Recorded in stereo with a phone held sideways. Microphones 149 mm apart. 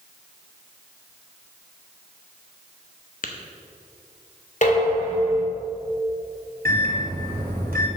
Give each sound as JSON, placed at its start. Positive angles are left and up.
{"t": 3.2, "sound": "tapping", "side_deg": 65, "distance_m": 0.9}
{"t": 4.6, "sound": "dishes clattering", "side_deg": 55, "distance_m": 2.0}
{"t": 6.7, "sound": "a microwave", "side_deg": -85, "distance_m": 2.0}